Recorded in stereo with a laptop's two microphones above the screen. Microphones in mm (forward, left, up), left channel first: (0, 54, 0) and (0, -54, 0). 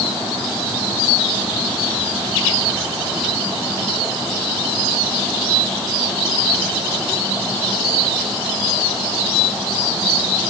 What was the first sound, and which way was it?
Only background noise.